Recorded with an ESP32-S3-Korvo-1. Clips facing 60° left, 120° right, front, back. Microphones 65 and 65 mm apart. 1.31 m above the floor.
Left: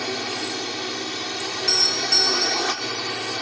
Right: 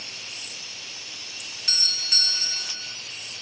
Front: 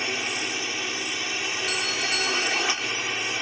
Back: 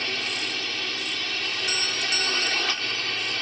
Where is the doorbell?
100° left.